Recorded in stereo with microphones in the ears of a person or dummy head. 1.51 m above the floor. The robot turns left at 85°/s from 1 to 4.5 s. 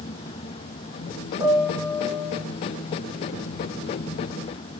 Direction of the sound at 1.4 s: 160° right.